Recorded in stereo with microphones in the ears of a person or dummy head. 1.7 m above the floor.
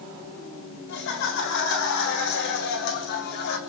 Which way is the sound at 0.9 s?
65° left (ahead or behind).